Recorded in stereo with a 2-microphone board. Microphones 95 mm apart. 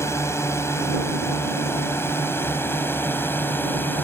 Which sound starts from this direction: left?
A drone, at 0.0 s.